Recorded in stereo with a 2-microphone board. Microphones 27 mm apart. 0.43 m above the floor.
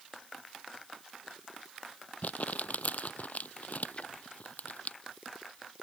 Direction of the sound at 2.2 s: 60° left (ahead or behind).